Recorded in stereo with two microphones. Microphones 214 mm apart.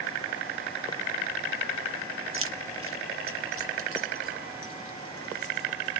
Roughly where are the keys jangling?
Right.